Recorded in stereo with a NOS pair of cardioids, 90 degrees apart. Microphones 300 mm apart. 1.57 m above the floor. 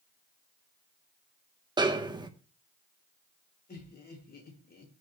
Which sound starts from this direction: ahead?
A snare drum, at 1.8 s.